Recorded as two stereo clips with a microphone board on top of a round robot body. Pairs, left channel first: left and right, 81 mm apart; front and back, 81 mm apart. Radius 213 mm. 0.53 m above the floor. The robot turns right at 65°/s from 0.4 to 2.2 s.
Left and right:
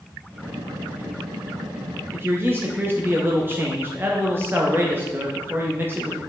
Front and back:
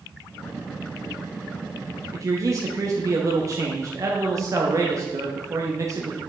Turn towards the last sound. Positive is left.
turn(degrees=-145)